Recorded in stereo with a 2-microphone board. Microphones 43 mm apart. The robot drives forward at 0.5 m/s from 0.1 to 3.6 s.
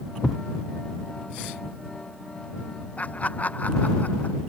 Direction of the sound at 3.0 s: 35° left (ahead or behind).